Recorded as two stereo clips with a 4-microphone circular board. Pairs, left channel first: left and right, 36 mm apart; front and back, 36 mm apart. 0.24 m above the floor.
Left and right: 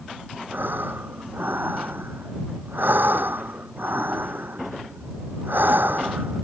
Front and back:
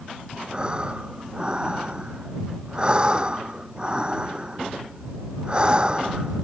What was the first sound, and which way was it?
Breathing, 115° right.